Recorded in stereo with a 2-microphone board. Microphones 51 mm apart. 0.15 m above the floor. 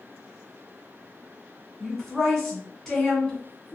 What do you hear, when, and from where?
1.8 s a woman speaking: 5° left (ahead or behind), 1.4 m